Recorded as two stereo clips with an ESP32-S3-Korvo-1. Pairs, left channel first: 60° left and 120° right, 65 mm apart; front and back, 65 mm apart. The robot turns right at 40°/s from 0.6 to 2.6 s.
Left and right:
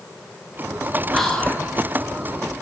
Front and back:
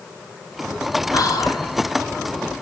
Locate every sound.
1.1 s whispering: 25° right, 0.6 m; by 1.7 s 5° right, 0.6 m